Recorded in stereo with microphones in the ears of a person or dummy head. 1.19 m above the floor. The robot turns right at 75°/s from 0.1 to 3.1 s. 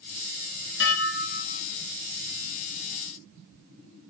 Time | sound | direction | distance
0.8 | dishes clattering | 85° left | 1.3 m